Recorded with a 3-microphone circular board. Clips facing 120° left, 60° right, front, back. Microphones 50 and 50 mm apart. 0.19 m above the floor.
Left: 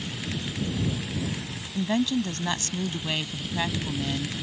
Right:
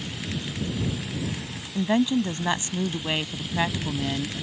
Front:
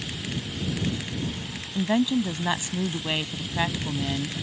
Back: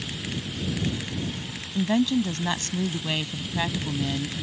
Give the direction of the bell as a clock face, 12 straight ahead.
No bell in this recording.